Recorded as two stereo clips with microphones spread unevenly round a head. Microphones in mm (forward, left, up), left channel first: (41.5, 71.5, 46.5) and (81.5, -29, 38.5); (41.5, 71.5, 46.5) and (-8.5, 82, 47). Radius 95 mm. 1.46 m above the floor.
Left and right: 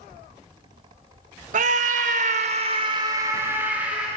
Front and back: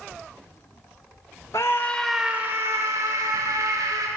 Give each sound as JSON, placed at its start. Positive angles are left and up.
{"t": 1.5, "sound": "a scream", "azimuth_deg": -75, "distance_m": 1.4}